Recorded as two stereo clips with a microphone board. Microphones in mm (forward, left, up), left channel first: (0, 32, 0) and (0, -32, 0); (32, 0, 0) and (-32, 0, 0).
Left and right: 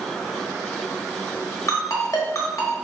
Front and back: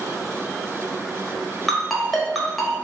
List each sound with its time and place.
1.7 s a ringtone: 90° left, 1.1 m